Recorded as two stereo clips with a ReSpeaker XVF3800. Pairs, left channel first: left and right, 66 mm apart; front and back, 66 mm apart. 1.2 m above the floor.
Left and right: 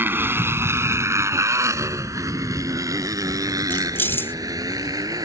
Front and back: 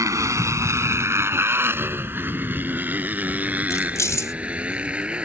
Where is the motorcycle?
145° right; by 5.3 s 105° right.